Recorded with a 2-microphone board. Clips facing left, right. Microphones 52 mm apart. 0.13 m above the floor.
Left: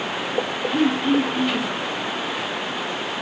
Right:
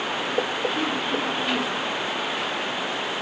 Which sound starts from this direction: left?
Throat clearing, at 0.7 s.